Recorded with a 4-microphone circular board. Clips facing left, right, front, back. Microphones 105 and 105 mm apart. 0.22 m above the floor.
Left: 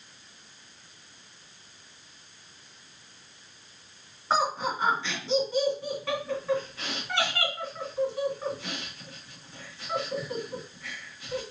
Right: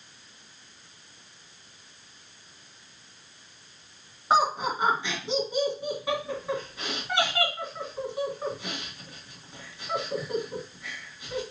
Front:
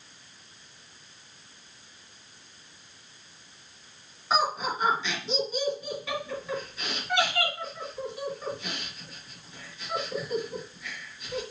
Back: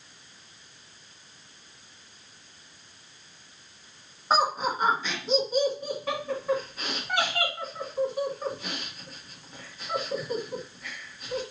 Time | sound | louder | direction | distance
4.3 | laughter | right 3 dB, back 2 dB | 155° right | 1.9 m